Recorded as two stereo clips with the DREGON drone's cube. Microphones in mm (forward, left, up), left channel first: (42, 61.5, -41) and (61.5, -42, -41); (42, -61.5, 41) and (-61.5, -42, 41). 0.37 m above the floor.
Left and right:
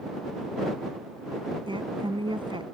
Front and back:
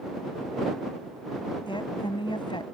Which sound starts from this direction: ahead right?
A woman speaking, at 1.7 s.